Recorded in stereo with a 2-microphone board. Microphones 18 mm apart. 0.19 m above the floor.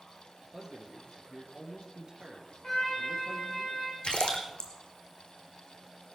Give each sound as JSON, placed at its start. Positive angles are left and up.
{"t": 0.5, "sound": "a man speaking", "side_deg": -30, "distance_m": 3.5}
{"t": 2.6, "sound": "a trumpet", "side_deg": 45, "distance_m": 5.0}
{"t": 4.0, "sound": "a splash", "side_deg": 65, "distance_m": 2.5}